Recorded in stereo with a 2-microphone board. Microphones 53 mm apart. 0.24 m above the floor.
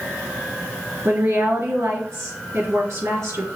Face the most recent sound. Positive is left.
turn(degrees=-65)  # may be behind; listen again after turning